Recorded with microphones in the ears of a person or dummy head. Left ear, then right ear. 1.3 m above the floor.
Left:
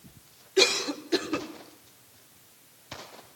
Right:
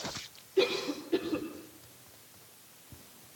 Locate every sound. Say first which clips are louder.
0.6 s a cough: left 6 dB; 70° left (ahead or behind), 4.5 m